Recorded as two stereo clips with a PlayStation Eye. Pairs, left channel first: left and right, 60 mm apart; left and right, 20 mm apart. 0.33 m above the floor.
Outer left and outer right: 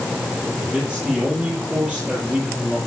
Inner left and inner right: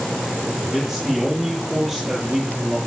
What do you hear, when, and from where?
0.6 s a man speaking: 20° right (ahead or behind), 10 m